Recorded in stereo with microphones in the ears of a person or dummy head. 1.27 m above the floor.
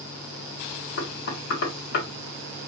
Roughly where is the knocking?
Left.